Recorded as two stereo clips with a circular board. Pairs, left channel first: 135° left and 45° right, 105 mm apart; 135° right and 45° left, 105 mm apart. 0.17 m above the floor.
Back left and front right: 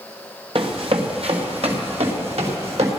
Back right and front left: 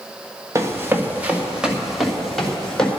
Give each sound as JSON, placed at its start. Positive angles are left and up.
{"t": 0.6, "sound": "running footsteps", "azimuth_deg": -15, "distance_m": 2.5}